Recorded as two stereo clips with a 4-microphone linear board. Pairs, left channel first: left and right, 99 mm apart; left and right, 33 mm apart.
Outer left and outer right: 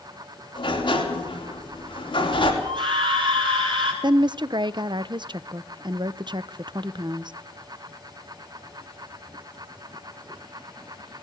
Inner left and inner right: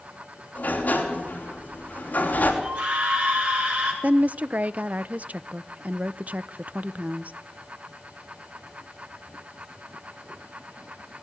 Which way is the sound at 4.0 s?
50° right (ahead or behind).